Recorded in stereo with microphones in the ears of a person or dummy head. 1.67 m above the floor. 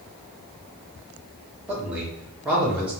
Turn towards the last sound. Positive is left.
turn(degrees=-10)  # may be behind; listen again after turning